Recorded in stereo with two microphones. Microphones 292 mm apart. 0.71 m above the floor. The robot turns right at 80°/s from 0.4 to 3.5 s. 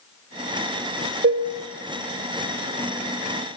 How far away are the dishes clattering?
About 0.6 m.